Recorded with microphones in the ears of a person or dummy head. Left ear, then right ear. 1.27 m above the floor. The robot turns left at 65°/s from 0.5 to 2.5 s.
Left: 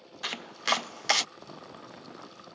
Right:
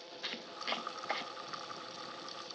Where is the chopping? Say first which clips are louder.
Left 10 dB; 35° left (ahead or behind); by 1.3 s 85° left.